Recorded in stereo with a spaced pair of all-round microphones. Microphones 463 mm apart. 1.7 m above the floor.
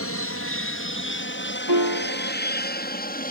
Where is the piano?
50° right (ahead or behind).